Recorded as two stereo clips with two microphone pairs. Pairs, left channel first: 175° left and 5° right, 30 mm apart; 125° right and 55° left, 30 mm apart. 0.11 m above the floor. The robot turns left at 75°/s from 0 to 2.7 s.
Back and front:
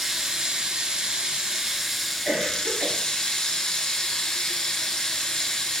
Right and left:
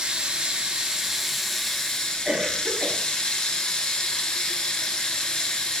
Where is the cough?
15° left, 2.0 m; by 3.0 s 20° right, 2.0 m.